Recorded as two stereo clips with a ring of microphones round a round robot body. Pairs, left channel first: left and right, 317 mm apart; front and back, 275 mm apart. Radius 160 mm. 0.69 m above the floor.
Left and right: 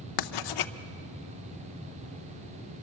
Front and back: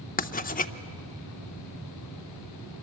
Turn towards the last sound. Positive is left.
turn(degrees=65)